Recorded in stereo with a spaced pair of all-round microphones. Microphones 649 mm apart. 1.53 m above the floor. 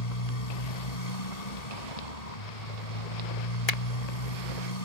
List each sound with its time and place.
0.0 s a motorcycle: 70° left (ahead or behind)
3.7 s a finger snap: 65° left (ahead or behind)